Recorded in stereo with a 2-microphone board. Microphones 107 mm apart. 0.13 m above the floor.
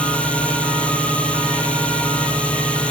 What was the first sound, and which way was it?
A drone, 10° left (ahead or behind).